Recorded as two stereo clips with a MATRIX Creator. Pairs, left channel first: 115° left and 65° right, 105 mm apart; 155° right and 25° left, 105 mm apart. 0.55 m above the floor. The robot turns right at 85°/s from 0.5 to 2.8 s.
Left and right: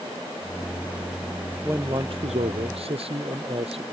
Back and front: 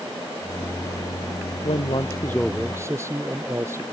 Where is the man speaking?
140° right; by 3.8 s 40° right.